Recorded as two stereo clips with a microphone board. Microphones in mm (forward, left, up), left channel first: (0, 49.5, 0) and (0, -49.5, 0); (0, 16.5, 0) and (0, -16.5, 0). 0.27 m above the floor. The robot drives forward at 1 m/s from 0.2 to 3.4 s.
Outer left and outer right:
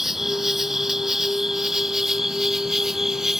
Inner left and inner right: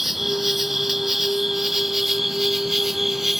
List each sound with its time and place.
0.0 s an insect: 5° right (ahead or behind)